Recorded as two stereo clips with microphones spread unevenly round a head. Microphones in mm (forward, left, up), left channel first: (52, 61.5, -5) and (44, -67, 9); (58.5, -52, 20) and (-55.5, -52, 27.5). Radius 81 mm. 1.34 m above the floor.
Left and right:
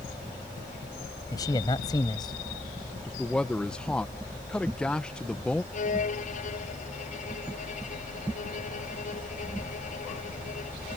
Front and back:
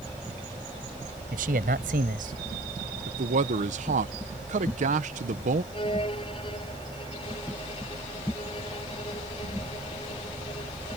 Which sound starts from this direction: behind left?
A man speaking, at 1.3 s.